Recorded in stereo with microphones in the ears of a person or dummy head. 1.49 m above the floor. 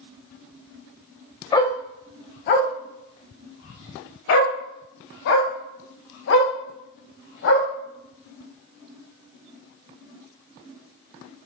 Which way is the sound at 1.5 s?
20° left (ahead or behind).